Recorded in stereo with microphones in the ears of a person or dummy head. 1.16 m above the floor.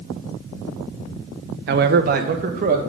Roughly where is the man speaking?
Right.